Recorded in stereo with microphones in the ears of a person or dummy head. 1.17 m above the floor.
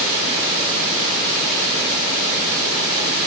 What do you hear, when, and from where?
Only background noise.